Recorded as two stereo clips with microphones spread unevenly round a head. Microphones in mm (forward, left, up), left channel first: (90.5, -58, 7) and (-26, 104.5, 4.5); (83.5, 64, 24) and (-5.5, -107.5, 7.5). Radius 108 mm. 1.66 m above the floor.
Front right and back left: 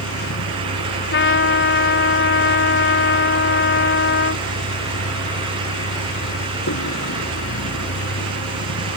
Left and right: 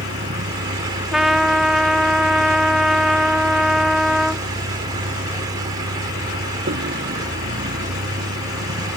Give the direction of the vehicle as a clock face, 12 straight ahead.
3 o'clock.